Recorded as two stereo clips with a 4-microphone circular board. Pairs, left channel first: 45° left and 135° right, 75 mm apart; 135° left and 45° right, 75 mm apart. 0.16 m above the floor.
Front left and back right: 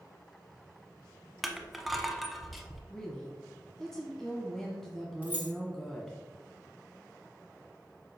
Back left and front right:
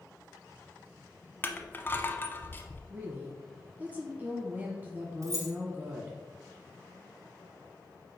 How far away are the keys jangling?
About 1.7 m.